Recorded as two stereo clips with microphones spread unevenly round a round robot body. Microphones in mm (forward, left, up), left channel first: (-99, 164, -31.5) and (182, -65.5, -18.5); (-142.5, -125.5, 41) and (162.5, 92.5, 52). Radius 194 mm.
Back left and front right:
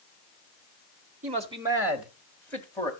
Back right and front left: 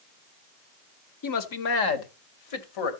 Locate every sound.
1.2 s a man speaking: 110° right, 1.6 m; by 2.9 s 140° right, 2.5 m